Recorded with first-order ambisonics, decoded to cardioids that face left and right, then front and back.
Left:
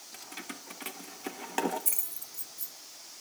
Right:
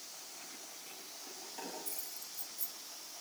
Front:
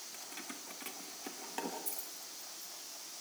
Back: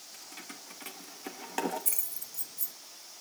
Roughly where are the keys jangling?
Left.